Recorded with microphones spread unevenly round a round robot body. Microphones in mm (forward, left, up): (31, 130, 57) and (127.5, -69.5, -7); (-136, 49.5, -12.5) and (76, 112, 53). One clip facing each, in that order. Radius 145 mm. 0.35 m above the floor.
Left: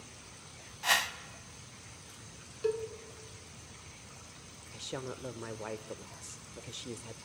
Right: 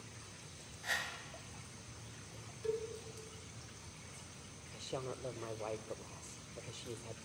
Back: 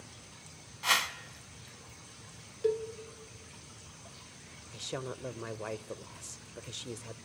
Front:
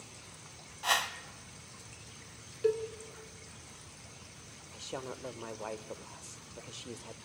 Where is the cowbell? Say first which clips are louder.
Left 6 dB, even; 95° left, 2.5 m.